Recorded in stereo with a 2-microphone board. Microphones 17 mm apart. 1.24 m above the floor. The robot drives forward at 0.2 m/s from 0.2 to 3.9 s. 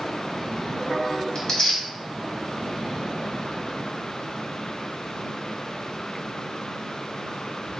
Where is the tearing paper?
40° left (ahead or behind), 1.2 m; by 1.8 s 45° left (ahead or behind), 1.1 m.